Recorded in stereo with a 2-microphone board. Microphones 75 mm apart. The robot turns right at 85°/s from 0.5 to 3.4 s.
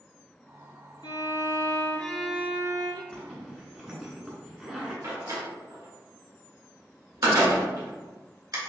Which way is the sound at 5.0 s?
60° right (ahead or behind).